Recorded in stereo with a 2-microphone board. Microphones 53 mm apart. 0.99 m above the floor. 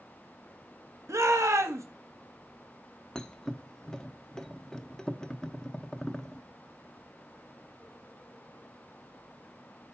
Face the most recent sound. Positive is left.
turn(degrees=15)  # may be behind; listen again after turning